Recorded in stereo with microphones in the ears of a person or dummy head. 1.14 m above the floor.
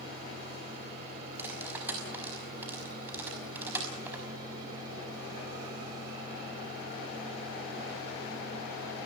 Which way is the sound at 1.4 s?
10° right (ahead or behind).